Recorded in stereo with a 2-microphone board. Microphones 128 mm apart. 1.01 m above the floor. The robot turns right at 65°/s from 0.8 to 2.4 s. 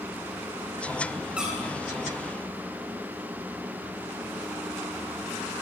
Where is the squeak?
10° right (ahead or behind), 8.5 m; by 1.7 s 10° left (ahead or behind), 8.5 m.